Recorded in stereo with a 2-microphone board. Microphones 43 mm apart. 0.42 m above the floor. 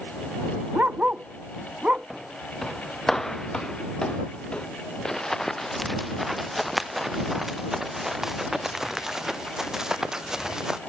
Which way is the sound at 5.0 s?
10° left (ahead or behind).